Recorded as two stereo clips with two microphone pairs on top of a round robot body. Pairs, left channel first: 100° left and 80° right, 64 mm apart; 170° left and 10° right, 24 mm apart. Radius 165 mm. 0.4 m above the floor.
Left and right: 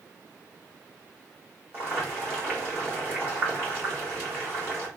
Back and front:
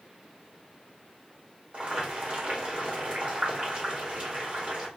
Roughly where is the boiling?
Ahead right.